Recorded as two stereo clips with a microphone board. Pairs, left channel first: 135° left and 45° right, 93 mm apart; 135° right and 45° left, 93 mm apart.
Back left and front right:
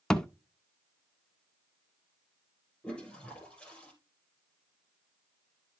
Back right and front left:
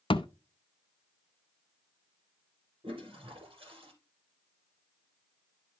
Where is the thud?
145° right, 0.6 m.